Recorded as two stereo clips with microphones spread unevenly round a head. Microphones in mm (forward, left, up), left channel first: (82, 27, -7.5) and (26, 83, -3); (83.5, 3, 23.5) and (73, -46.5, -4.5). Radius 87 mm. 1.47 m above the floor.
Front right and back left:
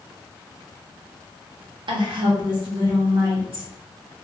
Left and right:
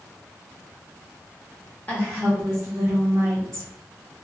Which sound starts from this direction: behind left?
A woman speaking, at 1.9 s.